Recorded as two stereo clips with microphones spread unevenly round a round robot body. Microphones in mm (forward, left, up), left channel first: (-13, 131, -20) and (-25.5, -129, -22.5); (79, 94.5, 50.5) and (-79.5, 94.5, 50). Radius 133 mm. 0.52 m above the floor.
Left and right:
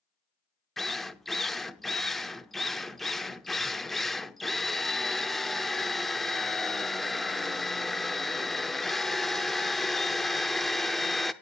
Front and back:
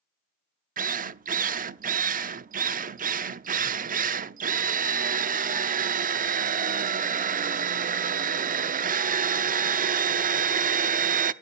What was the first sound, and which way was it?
A drill, 175° left.